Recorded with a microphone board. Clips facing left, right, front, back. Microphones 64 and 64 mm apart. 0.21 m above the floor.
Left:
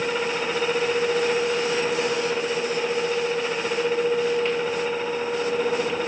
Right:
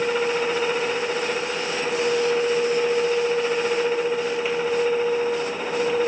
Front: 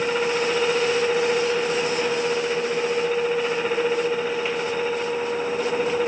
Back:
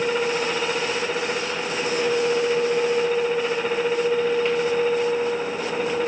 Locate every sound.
Only background noise.